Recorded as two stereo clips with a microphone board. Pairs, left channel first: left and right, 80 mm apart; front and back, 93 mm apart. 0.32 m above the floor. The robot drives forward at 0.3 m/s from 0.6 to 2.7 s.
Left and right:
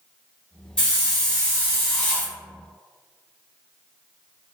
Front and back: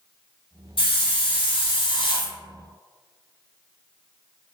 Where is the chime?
No chime in this recording.